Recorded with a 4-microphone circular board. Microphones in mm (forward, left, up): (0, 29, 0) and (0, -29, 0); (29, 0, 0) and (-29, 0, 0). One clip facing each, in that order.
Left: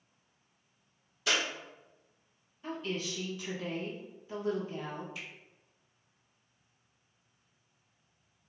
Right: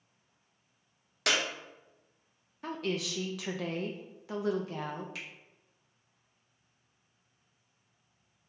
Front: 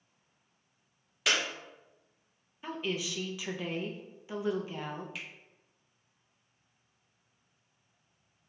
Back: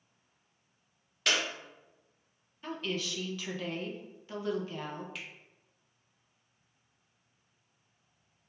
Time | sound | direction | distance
1.3 | a clap | 85° right | 1.0 m
2.6 | a woman speaking | 80° right | 0.8 m
5.2 | a finger snap | 85° right | 1.4 m